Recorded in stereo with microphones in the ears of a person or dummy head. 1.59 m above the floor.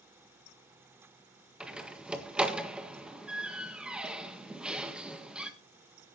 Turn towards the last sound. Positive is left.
turn(degrees=-5)  # may be behind; listen again after turning